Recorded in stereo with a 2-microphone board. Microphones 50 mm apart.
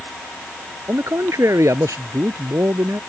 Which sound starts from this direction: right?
A man speaking, at 0.9 s.